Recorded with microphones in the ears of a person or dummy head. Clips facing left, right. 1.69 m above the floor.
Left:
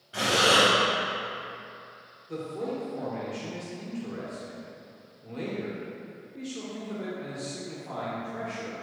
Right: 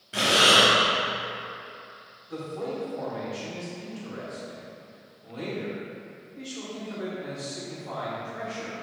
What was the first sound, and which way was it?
Breathing, 25° right (ahead or behind).